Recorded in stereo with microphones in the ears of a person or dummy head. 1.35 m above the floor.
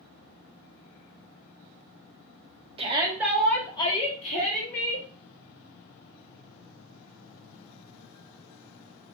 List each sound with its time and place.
2.8 s a shout: 35° right (ahead or behind), 0.7 m; by 5.1 s 45° left (ahead or behind), 1.4 m